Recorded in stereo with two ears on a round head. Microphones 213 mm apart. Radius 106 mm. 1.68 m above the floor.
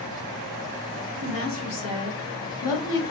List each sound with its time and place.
1.2 s a woman speaking: 60° left (ahead or behind), 2 m; by 3.0 s 80° left, 1.2 m